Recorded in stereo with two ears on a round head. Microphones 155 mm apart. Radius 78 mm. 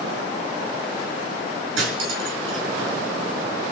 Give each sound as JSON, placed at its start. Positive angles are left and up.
{"t": 1.8, "sound": "cutlery clinking", "side_deg": -85, "distance_m": 6.0}